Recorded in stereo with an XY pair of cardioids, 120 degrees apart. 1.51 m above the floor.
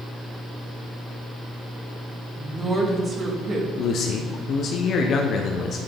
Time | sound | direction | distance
2.4 | a woman speaking | 15° right | 1.7 m
3.8 | a man speaking | 55° left | 0.8 m